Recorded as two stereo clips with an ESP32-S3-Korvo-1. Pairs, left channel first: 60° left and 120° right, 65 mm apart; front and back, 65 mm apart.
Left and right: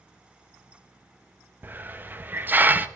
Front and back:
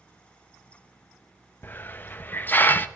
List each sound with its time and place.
1.6 s a hiss: 60° right, 0.6 m